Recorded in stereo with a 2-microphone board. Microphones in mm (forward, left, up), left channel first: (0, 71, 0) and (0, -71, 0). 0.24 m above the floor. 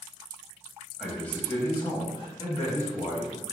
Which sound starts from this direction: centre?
A man speaking, at 1.0 s.